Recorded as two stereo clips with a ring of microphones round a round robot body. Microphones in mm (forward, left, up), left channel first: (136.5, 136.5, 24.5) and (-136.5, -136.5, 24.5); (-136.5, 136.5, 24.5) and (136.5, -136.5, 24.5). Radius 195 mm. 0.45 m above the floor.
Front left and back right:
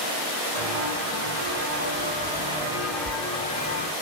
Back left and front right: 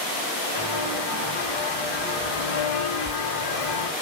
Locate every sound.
0.6 s footsteps: 175° left, 4.5 m; by 3.9 s 110° left, 3 m